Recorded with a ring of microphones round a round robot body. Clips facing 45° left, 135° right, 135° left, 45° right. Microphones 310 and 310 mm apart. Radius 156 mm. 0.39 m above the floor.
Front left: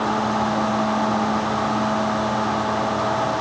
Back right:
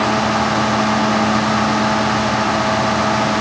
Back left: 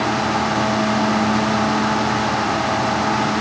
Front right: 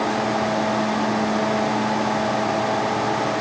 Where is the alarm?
No alarm in this recording.